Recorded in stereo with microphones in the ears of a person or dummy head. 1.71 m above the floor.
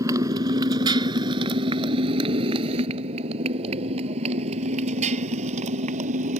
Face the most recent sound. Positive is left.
turn(degrees=-40)  # may be behind; listen again after turning